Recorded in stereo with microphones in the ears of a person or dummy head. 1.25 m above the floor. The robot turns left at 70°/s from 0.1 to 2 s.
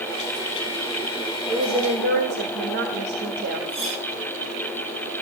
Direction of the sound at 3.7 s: 30° right (ahead or behind).